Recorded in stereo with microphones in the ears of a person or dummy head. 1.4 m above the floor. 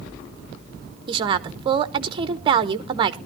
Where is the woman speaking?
30° right (ahead or behind), 0.8 m.